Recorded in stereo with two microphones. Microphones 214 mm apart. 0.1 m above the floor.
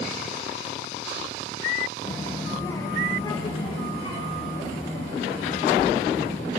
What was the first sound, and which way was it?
A child speaking, 5° left (ahead or behind).